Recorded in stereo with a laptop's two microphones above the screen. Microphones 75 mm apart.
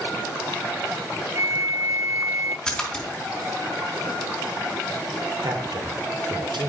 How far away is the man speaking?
About 2.5 m.